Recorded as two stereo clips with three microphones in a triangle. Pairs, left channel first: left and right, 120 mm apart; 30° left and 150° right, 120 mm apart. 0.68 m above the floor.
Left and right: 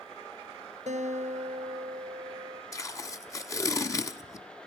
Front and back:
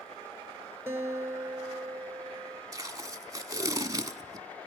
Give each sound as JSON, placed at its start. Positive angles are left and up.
{"t": 0.9, "sound": "a guitar", "azimuth_deg": -80, "distance_m": 2.5}
{"t": 2.7, "sound": "tape being pulled", "azimuth_deg": 150, "distance_m": 1.2}